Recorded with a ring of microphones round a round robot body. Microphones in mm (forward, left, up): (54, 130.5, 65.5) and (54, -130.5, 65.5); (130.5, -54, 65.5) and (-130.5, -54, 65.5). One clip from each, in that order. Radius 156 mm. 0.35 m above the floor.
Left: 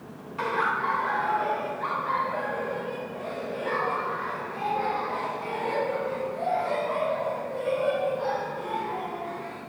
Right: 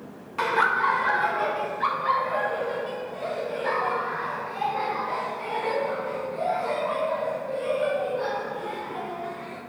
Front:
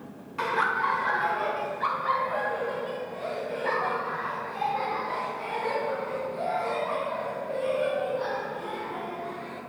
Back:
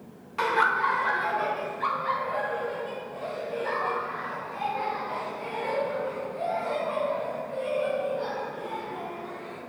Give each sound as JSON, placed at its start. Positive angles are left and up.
{"t": 0.4, "sound": "laughter", "azimuth_deg": -125, "distance_m": 1.3}